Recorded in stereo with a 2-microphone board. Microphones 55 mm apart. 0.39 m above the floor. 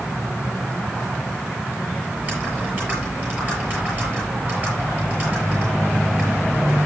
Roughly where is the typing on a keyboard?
Right.